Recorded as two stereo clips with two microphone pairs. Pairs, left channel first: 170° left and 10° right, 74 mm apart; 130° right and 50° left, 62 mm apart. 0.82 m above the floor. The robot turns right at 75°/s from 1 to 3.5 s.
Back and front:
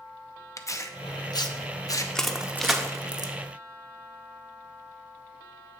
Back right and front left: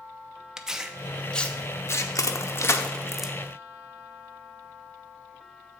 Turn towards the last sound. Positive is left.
turn(degrees=-10)